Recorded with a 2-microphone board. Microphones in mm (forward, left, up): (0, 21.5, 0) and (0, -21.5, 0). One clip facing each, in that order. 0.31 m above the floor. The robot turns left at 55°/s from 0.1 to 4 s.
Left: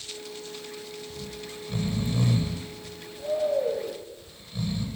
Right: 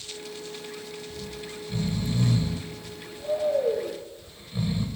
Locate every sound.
1.1 s snoring: 25° left (ahead or behind), 0.6 m; by 4.9 s 15° right (ahead or behind), 0.6 m